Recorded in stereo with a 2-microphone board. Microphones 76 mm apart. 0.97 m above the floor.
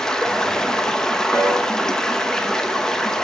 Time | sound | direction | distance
0.0 | running water | 10° left (ahead or behind) | 0.8 m
1.3 | a piano | 25° left (ahead or behind) | 5 m